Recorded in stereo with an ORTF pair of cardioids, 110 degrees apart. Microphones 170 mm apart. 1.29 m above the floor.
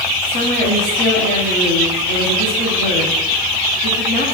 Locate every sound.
0.2 s a woman speaking: 70° left, 8.5 m